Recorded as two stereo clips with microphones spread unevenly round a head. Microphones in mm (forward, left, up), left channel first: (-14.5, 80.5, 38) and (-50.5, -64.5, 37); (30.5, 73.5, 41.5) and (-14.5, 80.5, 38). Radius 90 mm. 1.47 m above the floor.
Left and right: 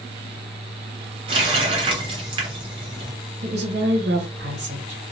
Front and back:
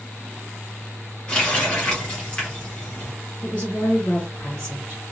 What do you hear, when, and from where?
1.3 s a running tap: 65° right, 0.6 m
3.4 s a woman speaking: 75° right, 1.1 m